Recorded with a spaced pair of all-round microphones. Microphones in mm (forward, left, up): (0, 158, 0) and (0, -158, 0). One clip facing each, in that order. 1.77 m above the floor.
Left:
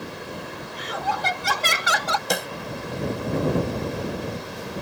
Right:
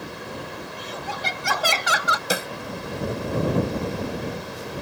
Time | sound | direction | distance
0.7 | laughter | 80° left | ?
2.3 | a snare drum | 5° right (ahead or behind) | ?